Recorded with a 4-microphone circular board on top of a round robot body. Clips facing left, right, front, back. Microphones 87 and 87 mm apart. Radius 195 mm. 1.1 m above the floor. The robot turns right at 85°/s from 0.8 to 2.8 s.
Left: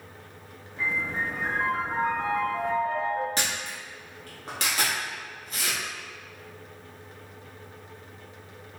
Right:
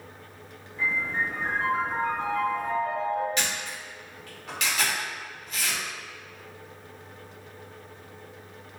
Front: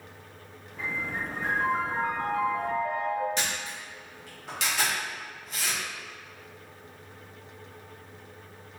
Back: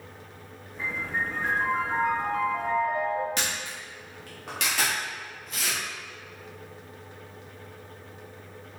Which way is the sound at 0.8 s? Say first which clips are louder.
Right 1 dB, back 2 dB; 15° left.